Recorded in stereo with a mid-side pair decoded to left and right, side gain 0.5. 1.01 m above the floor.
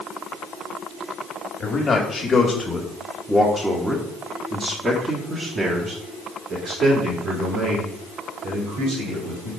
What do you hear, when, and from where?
1.6 s a man speaking: 45° left, 1.7 m; by 9.5 s 70° right, 4 m